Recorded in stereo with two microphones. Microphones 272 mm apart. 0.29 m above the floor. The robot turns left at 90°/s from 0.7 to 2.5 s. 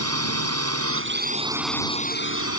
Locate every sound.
0.0 s a drone: 90° right; by 2.6 s 105° left